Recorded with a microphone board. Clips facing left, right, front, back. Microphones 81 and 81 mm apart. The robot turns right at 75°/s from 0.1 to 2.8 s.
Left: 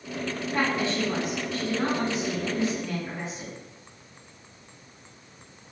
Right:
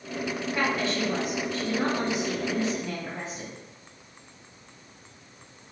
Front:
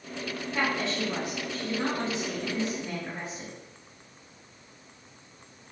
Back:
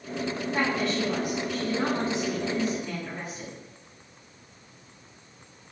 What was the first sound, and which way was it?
A woman speaking, 125° left.